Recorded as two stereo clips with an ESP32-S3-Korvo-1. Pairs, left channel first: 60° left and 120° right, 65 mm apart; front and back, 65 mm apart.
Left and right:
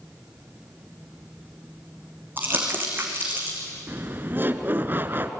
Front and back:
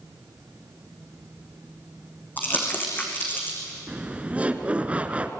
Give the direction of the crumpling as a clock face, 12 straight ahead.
2 o'clock.